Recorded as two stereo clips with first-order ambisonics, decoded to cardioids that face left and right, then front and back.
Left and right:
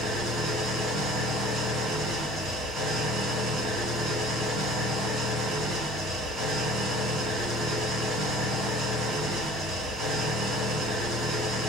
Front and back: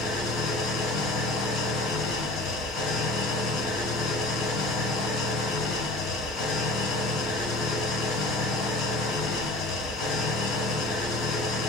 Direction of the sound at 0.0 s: 35° right.